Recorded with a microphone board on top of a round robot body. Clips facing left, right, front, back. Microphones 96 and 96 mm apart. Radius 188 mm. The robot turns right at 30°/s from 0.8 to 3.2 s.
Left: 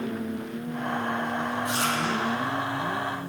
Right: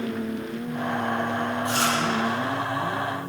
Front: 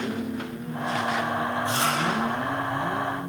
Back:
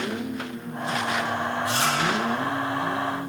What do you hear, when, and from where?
1.6 s chewing: 65° right, 9.5 m; by 1.9 s 55° right, 9.5 m